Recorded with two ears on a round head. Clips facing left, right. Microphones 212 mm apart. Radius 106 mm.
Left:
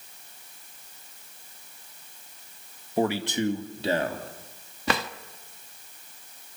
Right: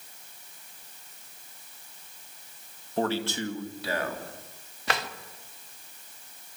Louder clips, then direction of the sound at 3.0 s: Left 3 dB; 10° left (ahead or behind).